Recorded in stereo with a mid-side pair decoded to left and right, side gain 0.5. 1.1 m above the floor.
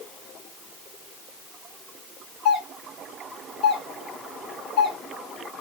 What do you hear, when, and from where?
2.5 s a doorbell: 70° left, 2.5 m